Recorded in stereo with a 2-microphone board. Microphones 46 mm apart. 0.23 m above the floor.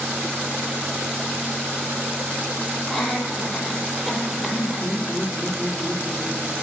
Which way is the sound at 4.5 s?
40° left (ahead or behind).